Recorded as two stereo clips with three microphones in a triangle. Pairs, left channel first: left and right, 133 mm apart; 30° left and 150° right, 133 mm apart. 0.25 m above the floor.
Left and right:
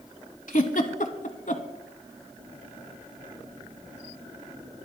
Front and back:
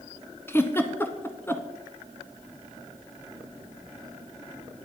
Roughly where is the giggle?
Left.